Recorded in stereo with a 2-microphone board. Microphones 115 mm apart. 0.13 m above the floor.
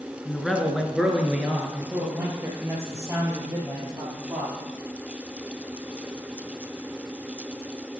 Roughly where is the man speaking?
Centre.